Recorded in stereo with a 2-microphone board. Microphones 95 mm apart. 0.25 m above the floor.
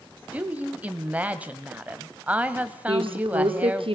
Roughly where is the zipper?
No zipper in this recording.